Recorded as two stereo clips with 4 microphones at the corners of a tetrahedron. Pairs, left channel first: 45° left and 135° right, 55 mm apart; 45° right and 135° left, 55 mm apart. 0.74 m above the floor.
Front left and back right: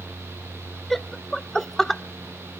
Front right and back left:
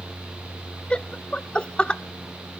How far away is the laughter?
About 0.5 m.